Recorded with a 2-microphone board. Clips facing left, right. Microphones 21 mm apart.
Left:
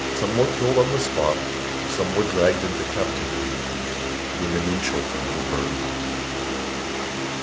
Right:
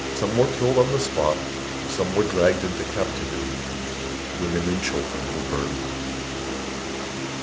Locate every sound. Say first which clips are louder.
0.2 s a man speaking: right 1 dB; centre (ahead or behind), 1.4 m